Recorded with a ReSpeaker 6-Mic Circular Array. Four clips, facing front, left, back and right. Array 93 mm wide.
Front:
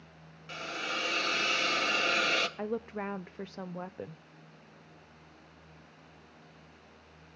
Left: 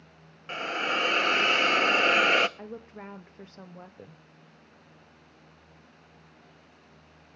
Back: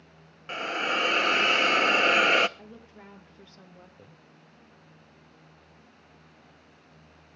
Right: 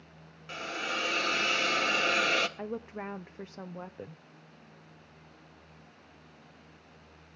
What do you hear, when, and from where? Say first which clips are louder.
0.5 s a hiss: left 6 dB, back 8 dB; 145° left, 0.8 m
2.6 s a woman speaking: right 4 dB, front 13 dB; 20° right, 0.6 m